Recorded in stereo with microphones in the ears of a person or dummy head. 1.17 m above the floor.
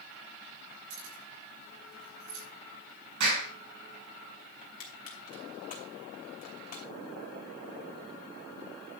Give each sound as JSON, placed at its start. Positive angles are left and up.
{"t": 0.9, "sound": "keys jangling", "side_deg": -85, "distance_m": 5.0}
{"t": 3.2, "sound": "a clap", "side_deg": -70, "distance_m": 5.5}
{"t": 4.6, "sound": "crushing", "side_deg": 35, "distance_m": 2.5}